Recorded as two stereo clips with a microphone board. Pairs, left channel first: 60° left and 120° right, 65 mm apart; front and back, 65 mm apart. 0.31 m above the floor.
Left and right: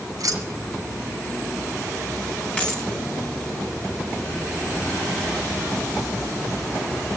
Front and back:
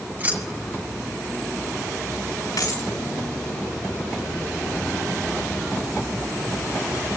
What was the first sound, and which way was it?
Keys jangling, 125° right.